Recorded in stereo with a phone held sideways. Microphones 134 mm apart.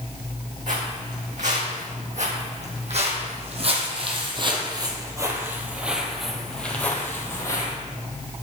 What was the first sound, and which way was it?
Footsteps, 65° right (ahead or behind).